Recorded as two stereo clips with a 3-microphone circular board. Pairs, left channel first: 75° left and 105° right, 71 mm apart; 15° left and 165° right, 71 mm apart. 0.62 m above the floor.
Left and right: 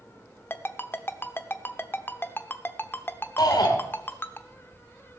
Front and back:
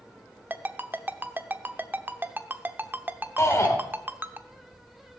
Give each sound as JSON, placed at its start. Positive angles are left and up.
{"t": 0.5, "sound": "a ringtone", "azimuth_deg": 135, "distance_m": 0.8}
{"t": 3.4, "sound": "a shout", "azimuth_deg": 60, "distance_m": 2.5}